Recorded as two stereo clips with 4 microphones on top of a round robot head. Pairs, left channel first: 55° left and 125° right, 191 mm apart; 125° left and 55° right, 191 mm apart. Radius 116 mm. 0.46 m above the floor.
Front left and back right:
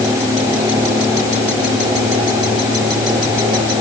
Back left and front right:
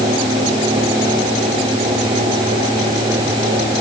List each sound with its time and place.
Only background noise.